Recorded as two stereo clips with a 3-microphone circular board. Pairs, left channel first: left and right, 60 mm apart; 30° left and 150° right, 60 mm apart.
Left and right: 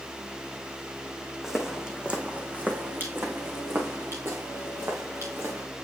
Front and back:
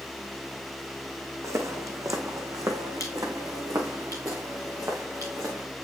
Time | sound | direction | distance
1.4 | footsteps | 175° right | 1.5 m